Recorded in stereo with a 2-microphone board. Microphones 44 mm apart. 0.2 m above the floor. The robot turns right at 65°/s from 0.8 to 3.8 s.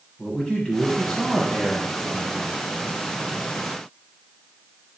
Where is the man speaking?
20° left (ahead or behind), 1.1 m; by 2.6 s 5° right (ahead or behind), 1.1 m.